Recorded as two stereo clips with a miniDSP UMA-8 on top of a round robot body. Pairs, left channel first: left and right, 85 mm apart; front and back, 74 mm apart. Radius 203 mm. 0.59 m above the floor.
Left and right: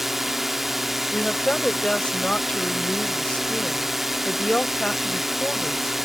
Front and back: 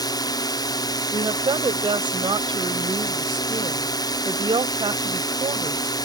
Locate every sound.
0.0 s a drone: straight ahead
1.1 s a woman speaking: 170° left